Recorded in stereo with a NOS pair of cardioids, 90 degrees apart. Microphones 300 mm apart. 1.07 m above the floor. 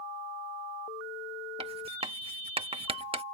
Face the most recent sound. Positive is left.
turn(degrees=-20)